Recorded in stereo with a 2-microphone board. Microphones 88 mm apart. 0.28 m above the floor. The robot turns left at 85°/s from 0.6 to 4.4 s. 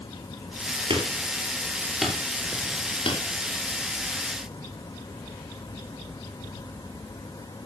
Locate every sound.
0.9 s hammering: 75° right (ahead or behind), 4.5 m; by 3.2 s 75° left (ahead or behind), 4.5 m